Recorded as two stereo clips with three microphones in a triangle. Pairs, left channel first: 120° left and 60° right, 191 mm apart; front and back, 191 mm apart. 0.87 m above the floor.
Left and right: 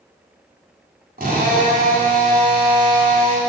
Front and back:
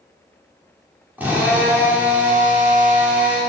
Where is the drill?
100° right, 2.5 m.